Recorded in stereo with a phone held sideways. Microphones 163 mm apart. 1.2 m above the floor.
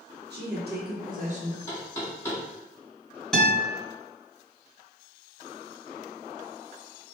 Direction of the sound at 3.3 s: Centre (ahead or behind).